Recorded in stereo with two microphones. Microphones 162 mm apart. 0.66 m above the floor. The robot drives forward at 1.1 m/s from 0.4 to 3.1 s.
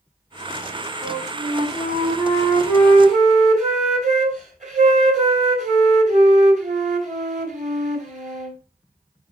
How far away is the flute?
About 5 m.